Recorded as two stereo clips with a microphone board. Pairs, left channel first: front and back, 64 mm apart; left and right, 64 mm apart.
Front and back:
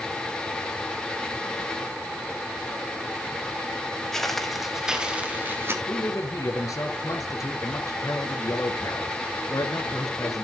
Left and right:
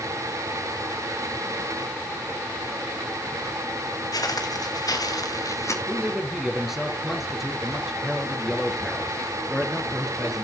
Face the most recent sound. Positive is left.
turn(degrees=-5)